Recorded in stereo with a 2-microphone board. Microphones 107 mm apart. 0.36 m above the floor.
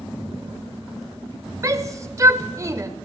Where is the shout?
30° right (ahead or behind), 0.9 m.